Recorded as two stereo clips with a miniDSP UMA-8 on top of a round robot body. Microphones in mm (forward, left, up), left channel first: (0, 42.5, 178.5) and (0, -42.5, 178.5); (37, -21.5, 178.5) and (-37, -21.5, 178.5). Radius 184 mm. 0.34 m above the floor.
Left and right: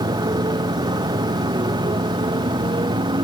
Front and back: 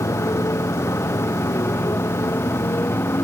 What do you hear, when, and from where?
0.0 s a motorcycle: 50° right; by 3.2 s 55° right